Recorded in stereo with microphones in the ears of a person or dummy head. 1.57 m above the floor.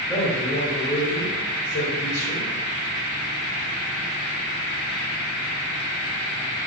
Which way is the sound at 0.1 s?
15° left (ahead or behind).